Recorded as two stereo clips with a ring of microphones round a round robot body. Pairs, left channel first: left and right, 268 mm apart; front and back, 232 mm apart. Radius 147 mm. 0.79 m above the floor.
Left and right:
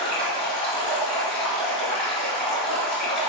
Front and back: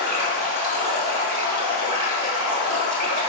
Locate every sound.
0.0 s running water: straight behind, 2.5 m